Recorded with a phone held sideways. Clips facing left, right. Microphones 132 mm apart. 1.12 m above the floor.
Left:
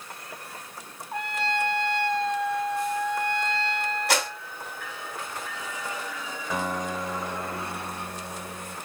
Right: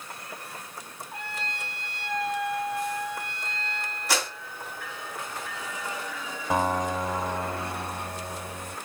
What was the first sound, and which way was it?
A trumpet, 50° left (ahead or behind).